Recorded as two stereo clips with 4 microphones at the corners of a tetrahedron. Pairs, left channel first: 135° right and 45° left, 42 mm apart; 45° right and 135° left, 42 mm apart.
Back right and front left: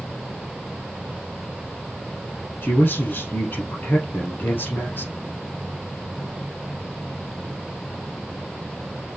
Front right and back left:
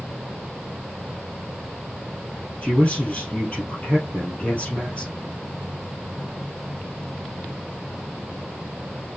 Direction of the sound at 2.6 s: 105° right.